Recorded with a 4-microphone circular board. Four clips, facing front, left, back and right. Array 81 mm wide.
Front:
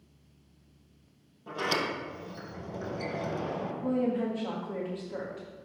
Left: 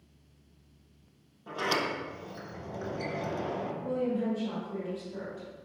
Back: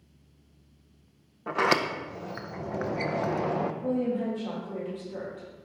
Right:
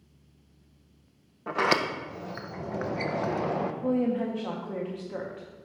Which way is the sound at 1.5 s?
140° right.